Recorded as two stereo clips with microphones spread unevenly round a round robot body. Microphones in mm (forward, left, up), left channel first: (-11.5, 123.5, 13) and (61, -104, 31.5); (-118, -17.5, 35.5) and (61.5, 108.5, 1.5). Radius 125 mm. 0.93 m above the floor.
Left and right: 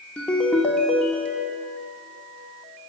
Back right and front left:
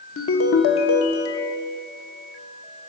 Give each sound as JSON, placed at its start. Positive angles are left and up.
{"t": 0.2, "sound": "a ringtone", "azimuth_deg": -165, "distance_m": 0.9}